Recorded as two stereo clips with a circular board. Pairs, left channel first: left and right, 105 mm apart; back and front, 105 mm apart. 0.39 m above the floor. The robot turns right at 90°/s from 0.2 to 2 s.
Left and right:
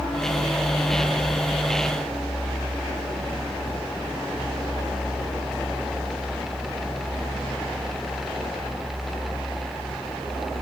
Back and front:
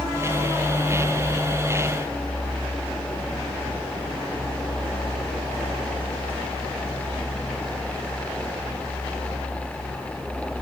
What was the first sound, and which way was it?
Only background noise.